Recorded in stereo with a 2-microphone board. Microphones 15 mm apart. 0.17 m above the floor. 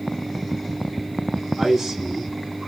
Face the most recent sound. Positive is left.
turn(degrees=-30)  # may be behind; listen again after turning